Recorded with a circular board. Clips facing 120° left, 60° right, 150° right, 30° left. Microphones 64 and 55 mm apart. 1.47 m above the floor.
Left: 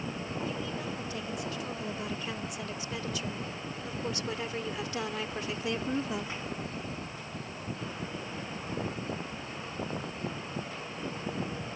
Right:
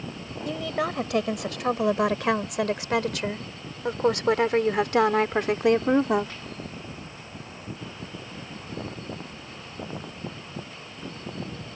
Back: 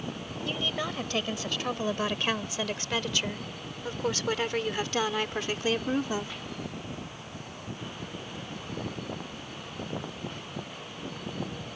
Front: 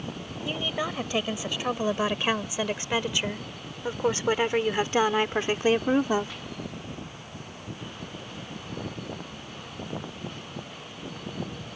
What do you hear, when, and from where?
0.5 s a woman speaking: 45° right; by 6.3 s 30° right